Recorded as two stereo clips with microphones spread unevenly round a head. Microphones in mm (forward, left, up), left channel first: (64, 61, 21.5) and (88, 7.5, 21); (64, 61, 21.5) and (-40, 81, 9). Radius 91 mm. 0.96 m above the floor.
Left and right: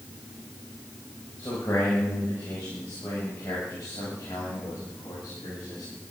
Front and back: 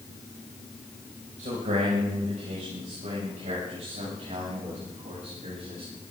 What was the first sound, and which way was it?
A man speaking, straight behind.